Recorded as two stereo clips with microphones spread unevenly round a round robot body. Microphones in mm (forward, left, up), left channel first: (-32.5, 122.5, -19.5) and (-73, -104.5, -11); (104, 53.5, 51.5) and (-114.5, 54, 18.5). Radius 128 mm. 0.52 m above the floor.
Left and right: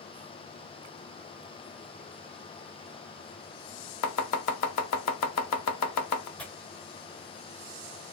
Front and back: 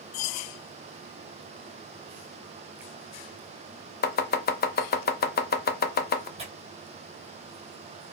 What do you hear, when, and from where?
4.0 s chopping: 45° left, 0.6 m
6.4 s tearing paper: 160° left, 1.3 m